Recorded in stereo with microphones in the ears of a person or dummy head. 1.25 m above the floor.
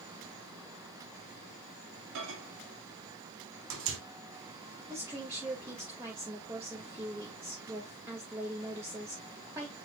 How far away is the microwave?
About 2.5 m.